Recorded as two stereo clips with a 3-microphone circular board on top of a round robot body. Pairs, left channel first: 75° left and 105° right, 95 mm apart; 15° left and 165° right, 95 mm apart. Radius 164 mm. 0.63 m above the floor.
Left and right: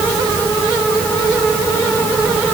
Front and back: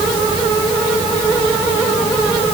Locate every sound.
Only background noise.